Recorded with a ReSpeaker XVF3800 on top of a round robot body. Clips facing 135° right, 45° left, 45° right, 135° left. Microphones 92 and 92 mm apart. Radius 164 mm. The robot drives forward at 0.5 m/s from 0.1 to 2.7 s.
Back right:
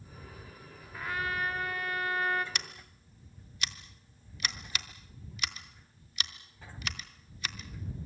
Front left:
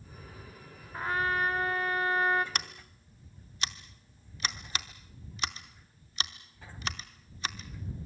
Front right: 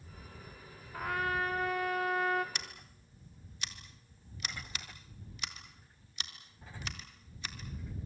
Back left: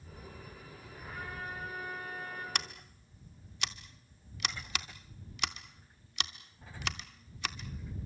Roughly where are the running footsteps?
I don't hear running footsteps.